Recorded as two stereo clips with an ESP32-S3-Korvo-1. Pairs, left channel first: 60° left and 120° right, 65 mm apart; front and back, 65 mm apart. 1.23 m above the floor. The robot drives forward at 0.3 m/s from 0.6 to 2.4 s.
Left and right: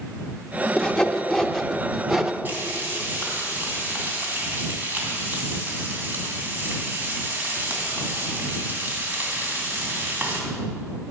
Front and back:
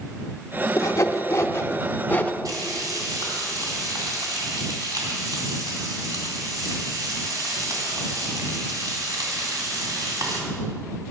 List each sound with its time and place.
0.8 s sawing: 15° right, 0.8 m; by 2.3 s 45° right, 0.5 m
2.5 s frying: straight behind, 2.5 m